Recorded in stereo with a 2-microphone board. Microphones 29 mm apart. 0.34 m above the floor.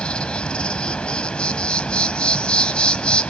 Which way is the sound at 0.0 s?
45° left (ahead or behind).